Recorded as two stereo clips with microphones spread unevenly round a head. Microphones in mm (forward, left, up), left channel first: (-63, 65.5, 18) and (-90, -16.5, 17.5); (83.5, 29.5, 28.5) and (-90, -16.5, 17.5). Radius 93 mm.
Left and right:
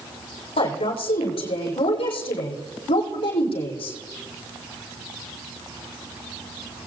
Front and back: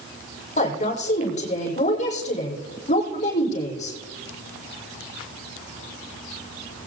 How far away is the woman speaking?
About 5 m.